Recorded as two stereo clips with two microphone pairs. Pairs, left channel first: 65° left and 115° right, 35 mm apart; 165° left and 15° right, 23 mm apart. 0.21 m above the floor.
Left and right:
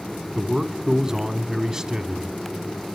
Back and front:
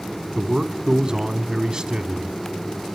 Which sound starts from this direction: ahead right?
A man speaking, at 0.3 s.